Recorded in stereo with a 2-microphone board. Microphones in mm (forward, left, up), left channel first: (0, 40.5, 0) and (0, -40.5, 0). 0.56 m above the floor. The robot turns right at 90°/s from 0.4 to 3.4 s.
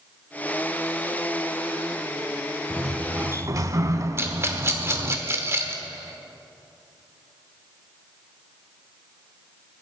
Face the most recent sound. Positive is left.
turn(degrees=-30)  # may be behind; listen again after turning